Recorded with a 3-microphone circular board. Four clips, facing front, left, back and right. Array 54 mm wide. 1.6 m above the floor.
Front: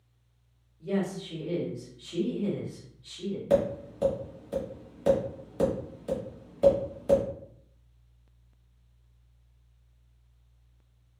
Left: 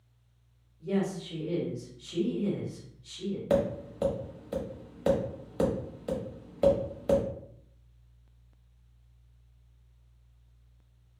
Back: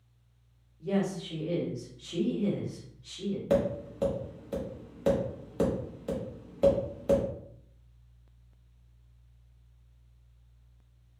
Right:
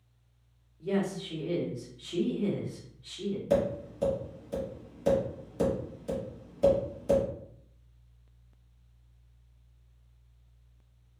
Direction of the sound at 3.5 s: 100° left.